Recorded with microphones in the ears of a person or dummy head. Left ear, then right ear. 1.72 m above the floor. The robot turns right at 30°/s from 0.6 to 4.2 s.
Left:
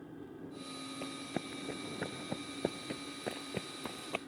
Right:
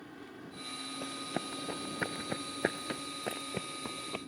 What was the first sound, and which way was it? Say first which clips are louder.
An engine running: even; 55° right.